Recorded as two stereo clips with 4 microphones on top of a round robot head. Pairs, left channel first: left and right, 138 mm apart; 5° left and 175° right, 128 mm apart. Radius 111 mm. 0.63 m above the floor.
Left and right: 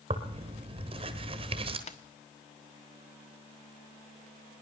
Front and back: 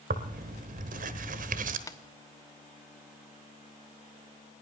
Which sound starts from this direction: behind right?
Tearing paper, at 0.1 s.